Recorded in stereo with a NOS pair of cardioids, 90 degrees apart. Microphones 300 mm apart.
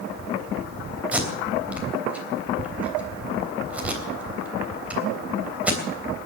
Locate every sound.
1.1 s tape being pulled: 5° right, 3.5 m